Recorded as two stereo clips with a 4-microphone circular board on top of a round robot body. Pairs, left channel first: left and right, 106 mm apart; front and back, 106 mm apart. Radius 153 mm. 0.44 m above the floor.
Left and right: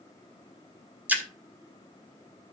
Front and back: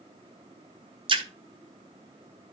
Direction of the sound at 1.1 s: 160° right.